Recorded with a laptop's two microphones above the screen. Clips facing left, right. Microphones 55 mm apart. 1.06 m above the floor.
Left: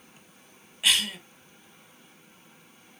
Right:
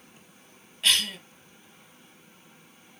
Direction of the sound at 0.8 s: 10° left (ahead or behind).